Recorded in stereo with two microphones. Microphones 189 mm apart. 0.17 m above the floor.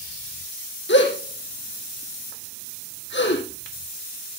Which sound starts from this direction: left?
A gasp, at 0.9 s.